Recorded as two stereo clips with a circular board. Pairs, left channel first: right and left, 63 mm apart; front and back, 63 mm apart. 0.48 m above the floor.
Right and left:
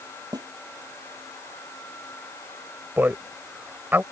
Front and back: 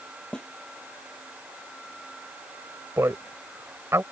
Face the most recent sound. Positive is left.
turn(degrees=145)